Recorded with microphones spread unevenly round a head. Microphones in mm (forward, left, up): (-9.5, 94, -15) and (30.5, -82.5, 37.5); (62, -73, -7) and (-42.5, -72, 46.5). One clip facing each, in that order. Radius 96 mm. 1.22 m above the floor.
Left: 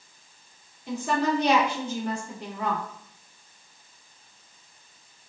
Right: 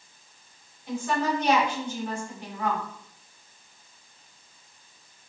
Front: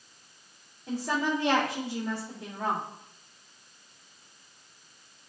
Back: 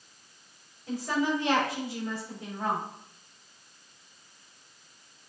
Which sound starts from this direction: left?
A woman speaking, at 0.9 s.